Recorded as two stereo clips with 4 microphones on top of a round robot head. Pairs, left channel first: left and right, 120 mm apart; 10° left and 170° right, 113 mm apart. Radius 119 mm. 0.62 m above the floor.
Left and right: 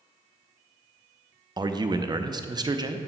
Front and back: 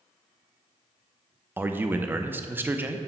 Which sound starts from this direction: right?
A man speaking, at 1.6 s.